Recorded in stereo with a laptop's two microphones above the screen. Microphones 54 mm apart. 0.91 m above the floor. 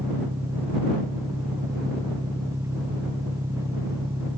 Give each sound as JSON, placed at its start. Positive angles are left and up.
{"t": 0.0, "sound": "an engine running", "side_deg": -70}